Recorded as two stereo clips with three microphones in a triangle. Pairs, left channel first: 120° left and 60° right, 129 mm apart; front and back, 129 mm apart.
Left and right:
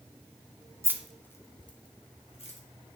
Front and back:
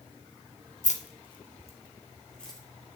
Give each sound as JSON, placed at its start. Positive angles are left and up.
{"t": 0.8, "sound": "keys jangling", "azimuth_deg": 5, "distance_m": 0.7}